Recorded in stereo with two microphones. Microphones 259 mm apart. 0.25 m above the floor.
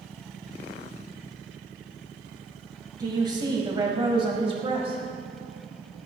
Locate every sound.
3.0 s a woman speaking: 15° right (ahead or behind), 1.9 m; by 5.0 s 25° right (ahead or behind), 1.5 m